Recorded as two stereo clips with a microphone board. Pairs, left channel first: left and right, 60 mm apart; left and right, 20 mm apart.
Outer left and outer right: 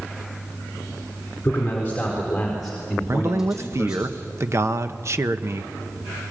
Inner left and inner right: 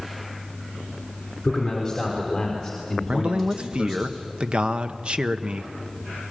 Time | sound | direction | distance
1.4 | a man speaking | 30° left (ahead or behind) | 4 m
3.1 | a man speaking | 50° right (ahead or behind) | 1.0 m